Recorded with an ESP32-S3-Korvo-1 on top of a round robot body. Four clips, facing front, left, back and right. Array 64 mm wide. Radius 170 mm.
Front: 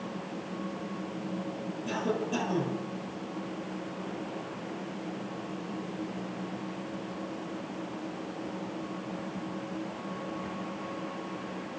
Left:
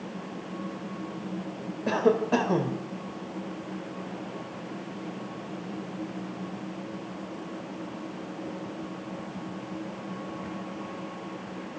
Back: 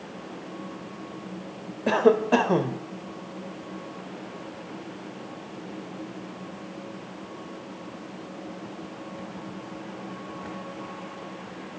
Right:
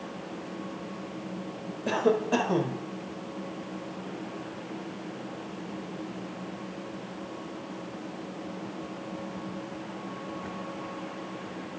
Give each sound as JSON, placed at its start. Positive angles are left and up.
{"t": 1.9, "sound": "a cough", "azimuth_deg": 170, "distance_m": 4.0}